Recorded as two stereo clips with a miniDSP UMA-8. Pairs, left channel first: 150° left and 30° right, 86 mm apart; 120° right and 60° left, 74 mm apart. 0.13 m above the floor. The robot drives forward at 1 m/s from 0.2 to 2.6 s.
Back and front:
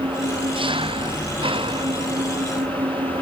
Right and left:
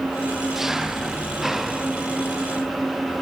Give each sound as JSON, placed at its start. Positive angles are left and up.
{"t": 0.0, "sound": "an engine running", "azimuth_deg": -25}